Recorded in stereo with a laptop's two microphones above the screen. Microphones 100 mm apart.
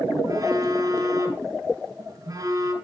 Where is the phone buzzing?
40° right (ahead or behind), 7.5 m.